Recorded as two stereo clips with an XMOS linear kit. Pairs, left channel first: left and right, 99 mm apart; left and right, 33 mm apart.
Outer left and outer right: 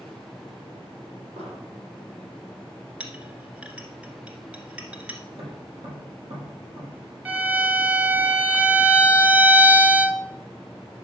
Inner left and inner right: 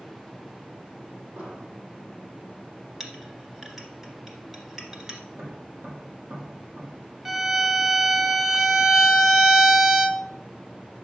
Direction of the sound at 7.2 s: 15° right (ahead or behind).